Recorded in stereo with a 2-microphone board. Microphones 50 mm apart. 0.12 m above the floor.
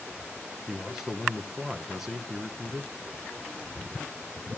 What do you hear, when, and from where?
0.7 s a man speaking: 10° right (ahead or behind), 1.1 m